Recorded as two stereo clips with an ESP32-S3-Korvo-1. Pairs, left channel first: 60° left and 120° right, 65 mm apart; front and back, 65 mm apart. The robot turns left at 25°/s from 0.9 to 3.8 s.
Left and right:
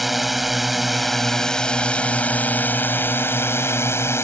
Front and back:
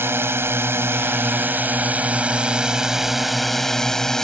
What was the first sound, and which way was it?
A drone, 155° left.